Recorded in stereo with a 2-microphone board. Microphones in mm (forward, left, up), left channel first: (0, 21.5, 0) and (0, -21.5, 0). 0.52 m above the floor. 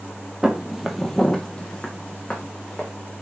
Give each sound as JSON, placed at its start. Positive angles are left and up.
{"t": 0.4, "sound": "footsteps", "side_deg": -15, "distance_m": 0.7}